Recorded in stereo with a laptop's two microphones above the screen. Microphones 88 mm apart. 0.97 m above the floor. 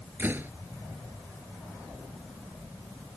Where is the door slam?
20° right (ahead or behind).